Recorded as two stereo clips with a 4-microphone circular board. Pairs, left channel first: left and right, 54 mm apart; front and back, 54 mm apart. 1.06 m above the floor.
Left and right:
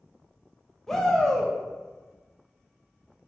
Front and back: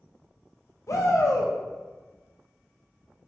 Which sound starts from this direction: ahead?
A shout, at 0.9 s.